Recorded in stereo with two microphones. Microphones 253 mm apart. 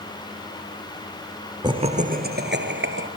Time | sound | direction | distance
1.6 | laughter | 15° right (ahead or behind) | 1.6 m